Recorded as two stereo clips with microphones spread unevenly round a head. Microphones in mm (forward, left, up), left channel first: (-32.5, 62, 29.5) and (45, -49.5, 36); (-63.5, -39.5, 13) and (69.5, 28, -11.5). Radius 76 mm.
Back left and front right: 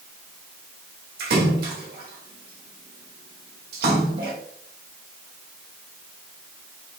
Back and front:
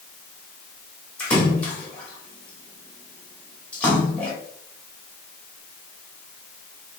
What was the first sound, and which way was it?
A splash, 75° right.